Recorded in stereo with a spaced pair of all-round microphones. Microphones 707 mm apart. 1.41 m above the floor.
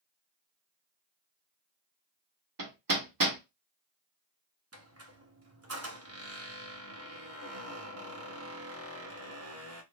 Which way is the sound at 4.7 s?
20° right (ahead or behind).